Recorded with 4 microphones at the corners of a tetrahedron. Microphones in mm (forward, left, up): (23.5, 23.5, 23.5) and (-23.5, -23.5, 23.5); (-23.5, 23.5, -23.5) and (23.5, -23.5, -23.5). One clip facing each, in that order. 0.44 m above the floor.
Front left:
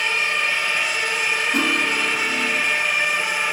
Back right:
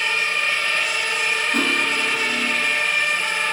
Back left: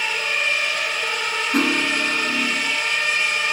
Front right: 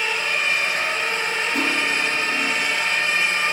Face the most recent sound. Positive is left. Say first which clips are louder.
# even, back left 4 dB
turn(degrees=125)